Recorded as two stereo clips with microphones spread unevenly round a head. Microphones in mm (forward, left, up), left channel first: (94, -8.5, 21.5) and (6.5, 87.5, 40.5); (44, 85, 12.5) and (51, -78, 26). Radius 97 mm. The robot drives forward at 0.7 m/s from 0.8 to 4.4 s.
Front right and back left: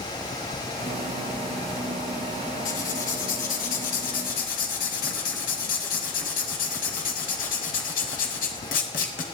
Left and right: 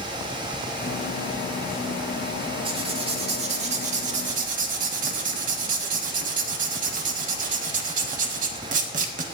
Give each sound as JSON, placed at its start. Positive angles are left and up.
{"t": 2.6, "sound": "writing", "azimuth_deg": -35, "distance_m": 2.5}